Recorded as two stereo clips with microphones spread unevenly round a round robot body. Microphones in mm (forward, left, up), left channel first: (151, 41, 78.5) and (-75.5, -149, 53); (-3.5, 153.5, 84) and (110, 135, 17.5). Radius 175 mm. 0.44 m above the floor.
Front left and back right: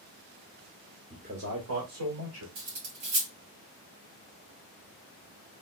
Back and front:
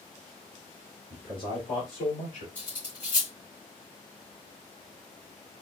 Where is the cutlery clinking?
175° right, 2.5 m.